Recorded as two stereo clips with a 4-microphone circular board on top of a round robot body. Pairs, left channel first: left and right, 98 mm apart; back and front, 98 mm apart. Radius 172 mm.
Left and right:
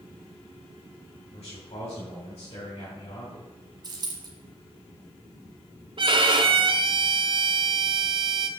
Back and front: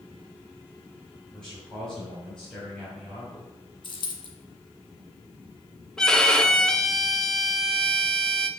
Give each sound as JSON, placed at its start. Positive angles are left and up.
{"t": 1.3, "sound": "a man speaking", "azimuth_deg": 95, "distance_m": 3.0}
{"t": 3.8, "sound": "a dropped coin", "azimuth_deg": -140, "distance_m": 1.7}
{"t": 6.0, "sound": "a violin", "azimuth_deg": -100, "distance_m": 1.1}